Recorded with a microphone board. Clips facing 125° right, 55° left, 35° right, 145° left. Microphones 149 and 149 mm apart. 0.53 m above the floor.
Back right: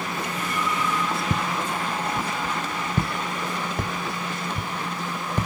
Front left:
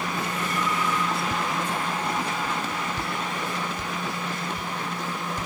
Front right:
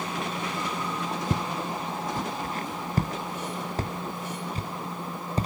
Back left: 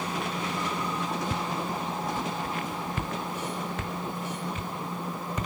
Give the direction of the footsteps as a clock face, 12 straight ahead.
3 o'clock.